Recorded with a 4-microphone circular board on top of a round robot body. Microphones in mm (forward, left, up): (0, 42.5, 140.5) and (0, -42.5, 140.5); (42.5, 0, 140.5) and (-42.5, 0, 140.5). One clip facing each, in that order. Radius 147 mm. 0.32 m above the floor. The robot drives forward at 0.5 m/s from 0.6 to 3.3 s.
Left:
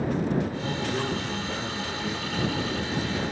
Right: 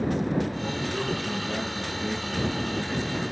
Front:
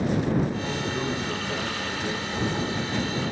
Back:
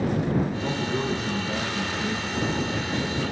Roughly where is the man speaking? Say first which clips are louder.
Left 1 dB, back 2 dB; behind.